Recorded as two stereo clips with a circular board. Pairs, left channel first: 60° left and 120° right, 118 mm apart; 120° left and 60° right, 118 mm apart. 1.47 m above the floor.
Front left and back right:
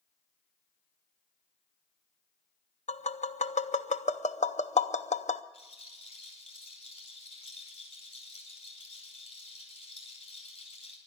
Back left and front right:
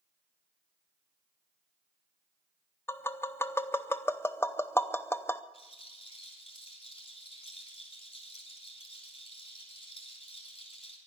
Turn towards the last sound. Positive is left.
turn(degrees=80)